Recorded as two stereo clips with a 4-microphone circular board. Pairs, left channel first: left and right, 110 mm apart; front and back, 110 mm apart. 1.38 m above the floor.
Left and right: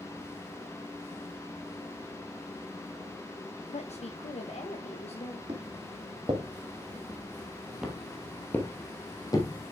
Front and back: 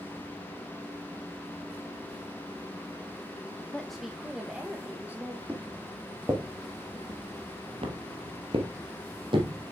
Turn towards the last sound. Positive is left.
turn(degrees=140)